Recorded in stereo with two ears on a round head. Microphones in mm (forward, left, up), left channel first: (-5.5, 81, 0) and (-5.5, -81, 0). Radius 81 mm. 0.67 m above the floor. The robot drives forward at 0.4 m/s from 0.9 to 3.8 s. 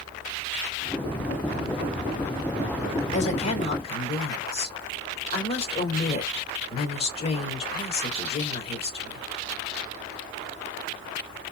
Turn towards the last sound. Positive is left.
turn(degrees=35)  # may be behind; listen again after turning